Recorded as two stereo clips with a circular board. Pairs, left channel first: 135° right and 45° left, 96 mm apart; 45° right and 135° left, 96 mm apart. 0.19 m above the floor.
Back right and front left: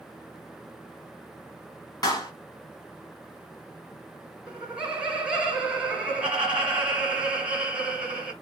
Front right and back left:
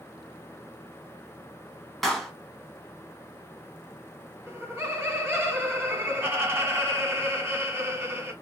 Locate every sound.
2.0 s a clap: 135° right, 1.0 m
4.5 s laughter: 105° left, 1.5 m